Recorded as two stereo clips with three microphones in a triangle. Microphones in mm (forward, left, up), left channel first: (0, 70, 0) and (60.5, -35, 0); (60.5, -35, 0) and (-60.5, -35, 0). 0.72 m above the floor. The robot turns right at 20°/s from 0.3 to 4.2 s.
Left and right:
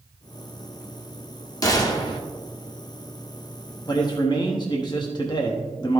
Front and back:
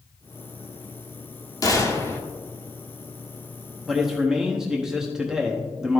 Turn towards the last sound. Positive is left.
turn(degrees=100)